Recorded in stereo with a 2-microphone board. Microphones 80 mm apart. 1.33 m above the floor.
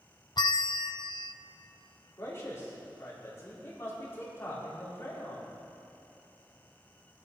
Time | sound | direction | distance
0.4 | a bell | 65° left (ahead or behind) | 0.5 m
2.2 | a man speaking | 35° left (ahead or behind) | 4 m